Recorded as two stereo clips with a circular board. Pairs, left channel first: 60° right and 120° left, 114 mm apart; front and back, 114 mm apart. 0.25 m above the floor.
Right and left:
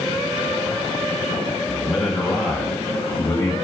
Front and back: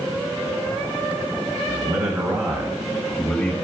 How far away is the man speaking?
About 2.0 m.